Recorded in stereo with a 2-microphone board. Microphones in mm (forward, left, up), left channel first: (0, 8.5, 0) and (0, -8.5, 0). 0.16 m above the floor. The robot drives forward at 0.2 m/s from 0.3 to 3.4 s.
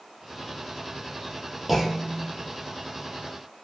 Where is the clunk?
20° right (ahead or behind), 1.3 m; by 2.3 s 15° right (ahead or behind), 1.4 m.